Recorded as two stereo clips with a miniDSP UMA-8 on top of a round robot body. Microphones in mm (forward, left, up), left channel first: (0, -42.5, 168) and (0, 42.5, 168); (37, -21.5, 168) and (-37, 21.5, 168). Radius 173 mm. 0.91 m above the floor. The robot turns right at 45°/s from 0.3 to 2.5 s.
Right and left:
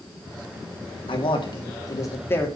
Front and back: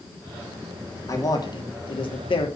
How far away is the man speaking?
About 3 m.